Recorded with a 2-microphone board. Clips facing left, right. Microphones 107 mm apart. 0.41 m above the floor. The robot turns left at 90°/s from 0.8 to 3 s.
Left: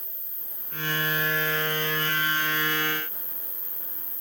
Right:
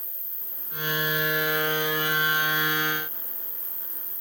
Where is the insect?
80° right, 1.0 m; by 4.2 s 80° left, 1.0 m.